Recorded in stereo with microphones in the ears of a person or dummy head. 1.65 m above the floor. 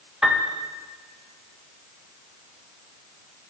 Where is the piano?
Centre (ahead or behind), 1.2 m.